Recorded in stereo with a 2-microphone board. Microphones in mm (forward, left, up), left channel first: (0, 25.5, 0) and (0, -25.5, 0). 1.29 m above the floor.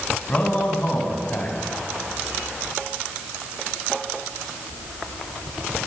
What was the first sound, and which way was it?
A man speaking, 30° left (ahead or behind).